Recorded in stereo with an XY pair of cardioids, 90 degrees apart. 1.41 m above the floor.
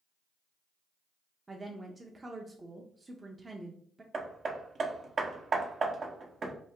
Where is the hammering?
50° right, 0.8 m.